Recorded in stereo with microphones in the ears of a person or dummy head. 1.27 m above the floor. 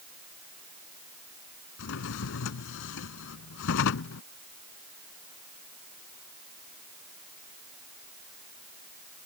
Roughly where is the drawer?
Left.